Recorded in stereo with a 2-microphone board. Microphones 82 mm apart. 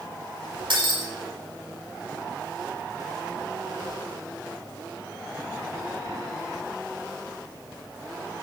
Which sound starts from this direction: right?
Breaking glass, at 0.7 s.